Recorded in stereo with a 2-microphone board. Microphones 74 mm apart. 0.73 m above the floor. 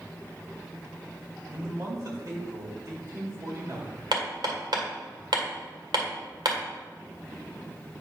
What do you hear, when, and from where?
1.5 s a man speaking: 50° right (ahead or behind), 2.5 m
4.1 s hammering: 70° right (ahead or behind), 1.8 m